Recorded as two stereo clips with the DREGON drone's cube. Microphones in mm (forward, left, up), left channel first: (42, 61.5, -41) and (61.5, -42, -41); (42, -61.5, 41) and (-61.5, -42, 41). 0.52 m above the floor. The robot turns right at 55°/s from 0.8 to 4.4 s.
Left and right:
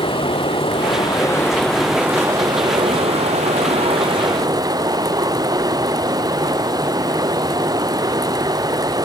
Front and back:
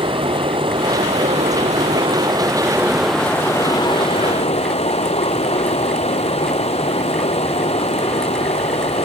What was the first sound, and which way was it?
Running water, 135° left.